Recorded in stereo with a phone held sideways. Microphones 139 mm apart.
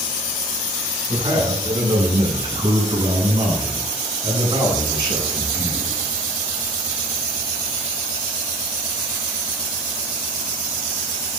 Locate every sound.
1.1 s a man speaking: 35° right (ahead or behind), 8.5 m